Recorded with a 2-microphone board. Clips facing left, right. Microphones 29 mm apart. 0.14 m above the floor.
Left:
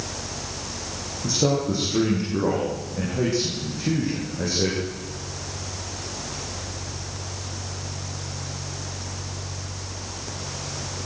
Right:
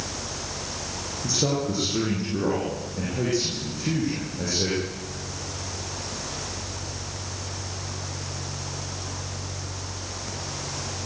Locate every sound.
1.2 s a man speaking: 15° left (ahead or behind), 7.5 m